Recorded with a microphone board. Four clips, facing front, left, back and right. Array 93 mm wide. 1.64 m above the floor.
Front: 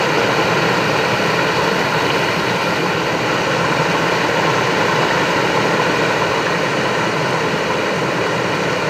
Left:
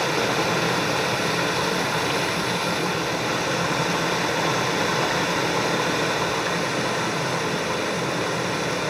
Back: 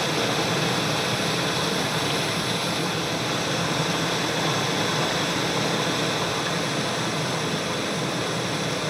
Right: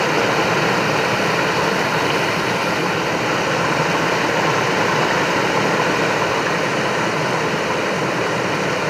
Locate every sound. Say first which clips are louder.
0.0 s running water: right 5 dB, front 9 dB; 30° right, 0.8 m